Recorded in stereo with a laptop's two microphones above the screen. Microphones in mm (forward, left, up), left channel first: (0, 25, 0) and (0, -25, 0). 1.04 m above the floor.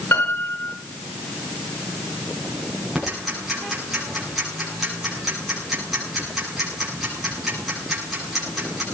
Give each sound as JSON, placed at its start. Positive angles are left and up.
{"t": 0.1, "sound": "a piano", "side_deg": 70, "distance_m": 9.5}
{"t": 3.0, "sound": "ticking", "side_deg": 0, "distance_m": 9.0}